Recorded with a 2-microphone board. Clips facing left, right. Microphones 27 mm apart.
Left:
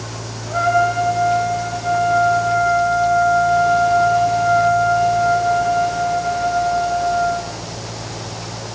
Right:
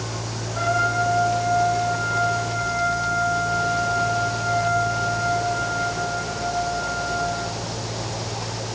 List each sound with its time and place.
0.5 s a trumpet: 85° left, 5 m